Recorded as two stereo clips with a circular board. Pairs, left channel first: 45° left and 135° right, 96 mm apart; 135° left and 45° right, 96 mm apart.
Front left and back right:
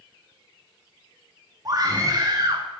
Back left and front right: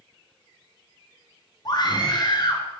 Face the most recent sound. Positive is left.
turn(degrees=175)